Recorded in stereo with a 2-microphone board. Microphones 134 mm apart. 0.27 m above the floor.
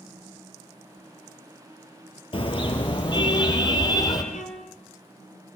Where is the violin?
80° left, 3.5 m.